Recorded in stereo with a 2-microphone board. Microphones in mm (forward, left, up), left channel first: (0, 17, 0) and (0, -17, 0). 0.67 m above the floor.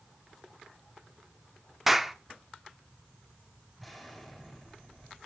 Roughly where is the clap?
Centre.